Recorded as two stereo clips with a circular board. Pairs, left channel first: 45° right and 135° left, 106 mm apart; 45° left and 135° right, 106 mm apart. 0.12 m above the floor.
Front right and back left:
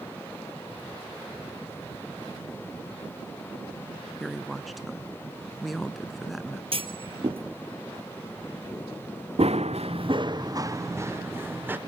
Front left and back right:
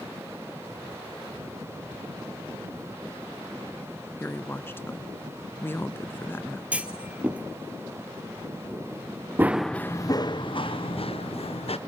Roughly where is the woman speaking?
Ahead left.